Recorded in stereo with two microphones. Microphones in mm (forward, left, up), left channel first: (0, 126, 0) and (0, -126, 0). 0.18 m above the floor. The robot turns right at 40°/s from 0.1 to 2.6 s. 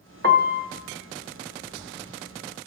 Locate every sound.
0.2 s a piano: 45° right (ahead or behind), 1.1 m; by 0.7 s 35° right (ahead or behind), 1.1 m